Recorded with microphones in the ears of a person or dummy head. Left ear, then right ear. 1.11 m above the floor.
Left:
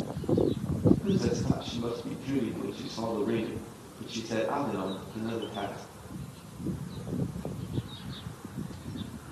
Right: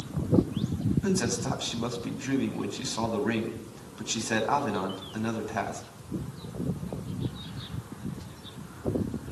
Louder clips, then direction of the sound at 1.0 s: Right 1 dB; 70° right (ahead or behind).